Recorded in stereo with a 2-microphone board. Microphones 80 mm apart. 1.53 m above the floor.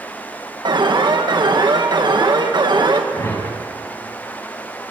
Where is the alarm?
70° right (ahead or behind), 1.9 m.